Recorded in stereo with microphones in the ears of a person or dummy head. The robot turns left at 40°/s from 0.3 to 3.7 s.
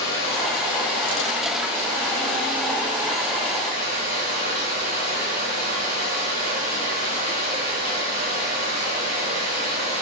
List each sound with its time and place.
0.0 s running water: 80° left, 2 m; by 10.0 s 55° right, 2 m